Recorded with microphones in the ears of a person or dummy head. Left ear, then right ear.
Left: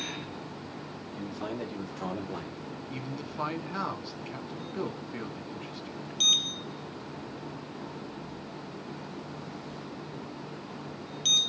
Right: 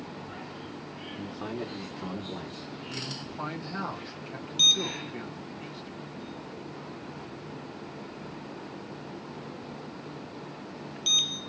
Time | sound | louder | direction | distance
1.1 | a man speaking | left 1 dB | 15° right (ahead or behind) | 1.8 m
2.9 | a man speaking | right 4 dB | 20° left (ahead or behind) | 1.7 m